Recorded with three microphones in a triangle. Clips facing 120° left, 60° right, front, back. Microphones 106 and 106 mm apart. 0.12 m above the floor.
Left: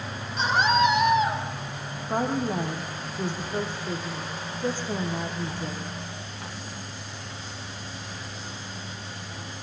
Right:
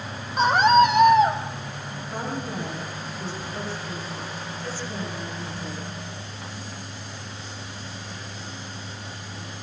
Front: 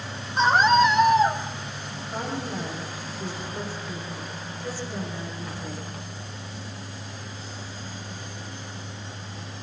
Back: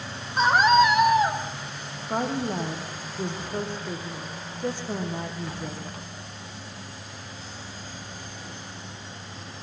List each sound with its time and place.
0.4 s a scream: 100° right, 6.5 m
2.1 s a woman speaking: 150° left, 6 m